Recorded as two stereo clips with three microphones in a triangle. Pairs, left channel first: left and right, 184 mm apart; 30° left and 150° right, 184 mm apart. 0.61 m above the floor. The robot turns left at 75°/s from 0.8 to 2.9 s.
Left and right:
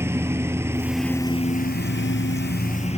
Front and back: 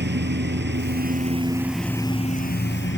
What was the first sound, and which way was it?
A lawn mower, 165° right.